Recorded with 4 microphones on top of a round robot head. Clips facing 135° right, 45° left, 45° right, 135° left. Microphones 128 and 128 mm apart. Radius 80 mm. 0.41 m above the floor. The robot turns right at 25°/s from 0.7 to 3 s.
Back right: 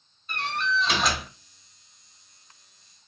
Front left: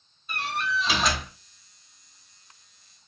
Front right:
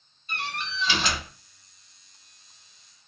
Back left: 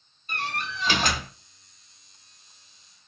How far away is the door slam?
About 0.6 m.